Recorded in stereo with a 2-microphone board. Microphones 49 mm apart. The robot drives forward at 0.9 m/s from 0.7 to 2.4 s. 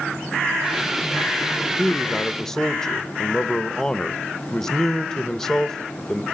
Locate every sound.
1.8 s a man speaking: 10° left (ahead or behind), 0.8 m